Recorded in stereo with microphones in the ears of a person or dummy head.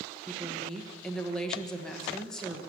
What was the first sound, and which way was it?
A woman speaking, 5° left (ahead or behind).